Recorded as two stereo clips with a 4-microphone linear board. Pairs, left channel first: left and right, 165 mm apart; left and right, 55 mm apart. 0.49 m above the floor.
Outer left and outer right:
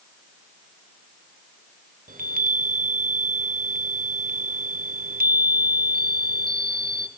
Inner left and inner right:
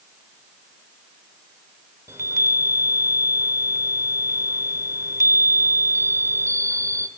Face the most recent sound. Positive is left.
turn(degrees=-60)  # may be behind; listen again after turning